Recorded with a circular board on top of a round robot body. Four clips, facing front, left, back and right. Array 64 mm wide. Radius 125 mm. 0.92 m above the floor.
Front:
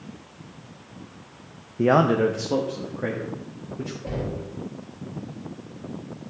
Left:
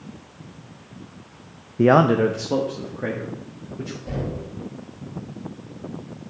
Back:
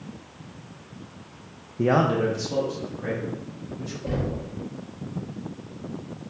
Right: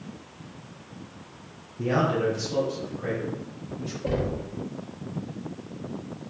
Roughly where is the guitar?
No guitar in this recording.